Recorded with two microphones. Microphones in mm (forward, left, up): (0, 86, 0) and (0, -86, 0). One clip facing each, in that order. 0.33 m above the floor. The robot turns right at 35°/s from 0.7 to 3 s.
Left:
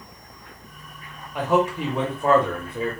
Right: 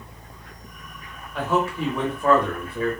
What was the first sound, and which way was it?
A man speaking, 15° left (ahead or behind).